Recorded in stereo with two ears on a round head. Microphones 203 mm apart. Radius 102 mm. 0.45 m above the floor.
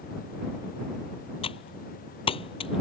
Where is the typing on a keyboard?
25° left (ahead or behind).